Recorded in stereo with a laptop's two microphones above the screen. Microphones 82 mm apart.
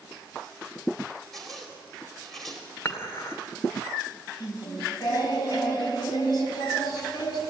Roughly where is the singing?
Left.